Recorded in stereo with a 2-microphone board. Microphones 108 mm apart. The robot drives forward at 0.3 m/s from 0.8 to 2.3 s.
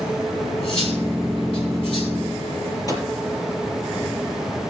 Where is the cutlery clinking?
70° left (ahead or behind), 5.5 m; by 2.8 s 65° left (ahead or behind), 5.5 m.